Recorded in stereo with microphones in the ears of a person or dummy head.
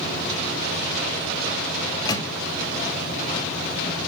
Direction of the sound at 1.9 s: 20° left (ahead or behind).